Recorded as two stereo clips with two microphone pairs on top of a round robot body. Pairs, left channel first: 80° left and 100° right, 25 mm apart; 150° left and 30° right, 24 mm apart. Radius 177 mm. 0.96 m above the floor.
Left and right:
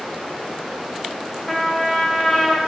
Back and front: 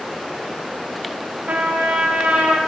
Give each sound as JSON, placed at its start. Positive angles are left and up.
{"t": 1.5, "sound": "a trumpet", "azimuth_deg": -10, "distance_m": 0.6}